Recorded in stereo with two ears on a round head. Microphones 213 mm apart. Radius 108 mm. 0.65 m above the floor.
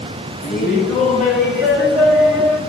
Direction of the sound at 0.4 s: Centre (ahead or behind).